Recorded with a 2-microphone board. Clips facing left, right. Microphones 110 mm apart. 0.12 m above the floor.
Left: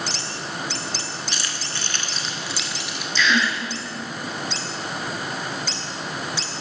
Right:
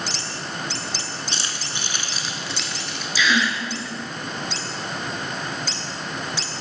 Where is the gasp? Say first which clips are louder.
Even; 5° right (ahead or behind), 0.9 m.